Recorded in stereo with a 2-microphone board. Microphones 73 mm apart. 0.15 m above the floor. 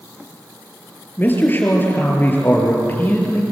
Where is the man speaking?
25° left (ahead or behind), 4 m.